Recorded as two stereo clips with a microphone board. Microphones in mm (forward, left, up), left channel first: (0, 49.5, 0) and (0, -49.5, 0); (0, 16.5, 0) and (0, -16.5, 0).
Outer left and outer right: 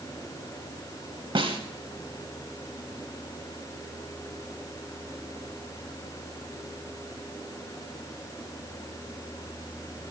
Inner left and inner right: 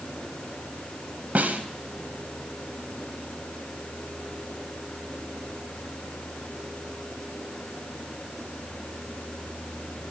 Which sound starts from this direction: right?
A snare drum, at 1.4 s.